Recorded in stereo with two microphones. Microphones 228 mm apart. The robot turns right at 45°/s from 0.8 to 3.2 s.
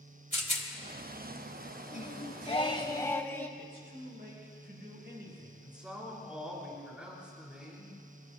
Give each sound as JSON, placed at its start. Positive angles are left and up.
{"t": 0.3, "sound": "a rattle", "side_deg": 30, "distance_m": 1.8}
{"t": 1.9, "sound": "singing", "azimuth_deg": 105, "distance_m": 1.1}
{"t": 3.6, "sound": "a man speaking", "side_deg": -50, "distance_m": 5.5}
{"t": 5.6, "sound": "a man speaking", "side_deg": -5, "distance_m": 4.0}